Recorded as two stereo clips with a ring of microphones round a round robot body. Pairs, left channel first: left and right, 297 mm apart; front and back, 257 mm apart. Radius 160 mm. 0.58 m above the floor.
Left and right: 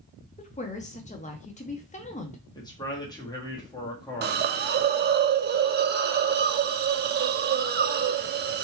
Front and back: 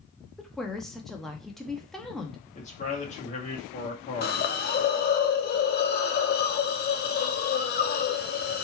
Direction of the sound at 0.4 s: 85° left.